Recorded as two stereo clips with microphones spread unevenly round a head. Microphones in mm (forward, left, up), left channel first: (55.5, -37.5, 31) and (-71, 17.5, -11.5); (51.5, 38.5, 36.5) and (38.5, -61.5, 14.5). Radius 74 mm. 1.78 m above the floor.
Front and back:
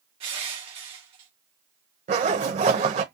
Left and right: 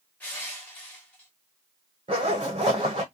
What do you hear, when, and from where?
0.2 s crushing: 110° left, 1.4 m
2.1 s a zipper: 160° right, 1.2 m